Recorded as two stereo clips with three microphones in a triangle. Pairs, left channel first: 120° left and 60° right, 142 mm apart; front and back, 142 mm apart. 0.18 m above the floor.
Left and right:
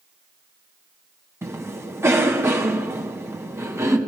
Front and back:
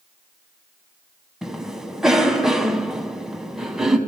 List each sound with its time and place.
1.4 s a cough: 100° right, 1.3 m